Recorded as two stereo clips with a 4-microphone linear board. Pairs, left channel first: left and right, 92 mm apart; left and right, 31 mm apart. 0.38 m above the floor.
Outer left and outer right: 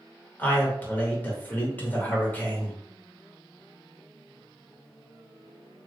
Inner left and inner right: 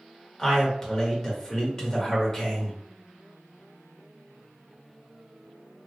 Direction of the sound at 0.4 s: 20° left (ahead or behind).